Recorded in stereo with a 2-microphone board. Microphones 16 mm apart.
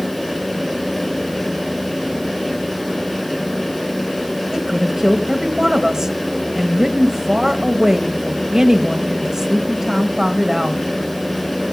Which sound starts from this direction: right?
A woman speaking, at 4.5 s.